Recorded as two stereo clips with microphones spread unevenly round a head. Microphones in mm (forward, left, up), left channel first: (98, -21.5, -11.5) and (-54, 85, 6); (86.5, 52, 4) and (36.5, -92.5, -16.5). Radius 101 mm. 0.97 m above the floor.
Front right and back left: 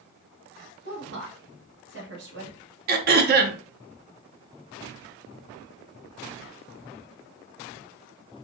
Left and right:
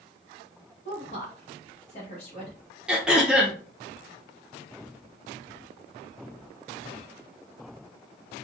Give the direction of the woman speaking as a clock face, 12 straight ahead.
8 o'clock.